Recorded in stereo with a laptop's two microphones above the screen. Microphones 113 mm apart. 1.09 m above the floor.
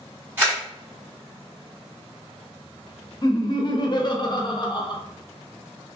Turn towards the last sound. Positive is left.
turn(degrees=40)  # may be behind; listen again after turning